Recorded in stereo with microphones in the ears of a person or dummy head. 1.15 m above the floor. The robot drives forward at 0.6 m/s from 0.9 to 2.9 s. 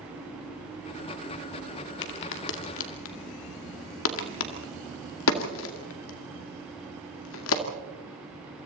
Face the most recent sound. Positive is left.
turn(degrees=70)  # may be behind; listen again after turning